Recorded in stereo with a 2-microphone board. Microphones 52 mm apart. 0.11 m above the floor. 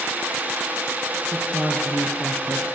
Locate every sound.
1.3 s a woman speaking: 25° left (ahead or behind), 2 m